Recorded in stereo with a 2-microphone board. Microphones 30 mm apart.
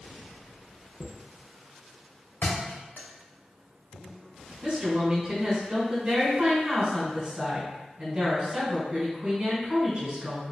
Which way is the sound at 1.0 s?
70° left (ahead or behind).